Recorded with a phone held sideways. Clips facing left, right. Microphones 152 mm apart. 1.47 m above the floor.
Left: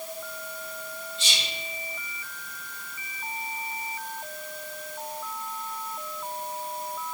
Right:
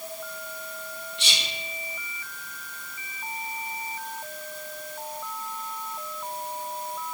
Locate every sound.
1.2 s whispering: 70° right (ahead or behind), 0.7 m